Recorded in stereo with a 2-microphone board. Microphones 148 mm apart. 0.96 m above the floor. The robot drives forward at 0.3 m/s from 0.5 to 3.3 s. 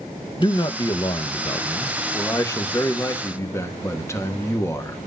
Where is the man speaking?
30° left (ahead or behind), 0.9 m; by 5.0 s 20° left (ahead or behind), 1.6 m.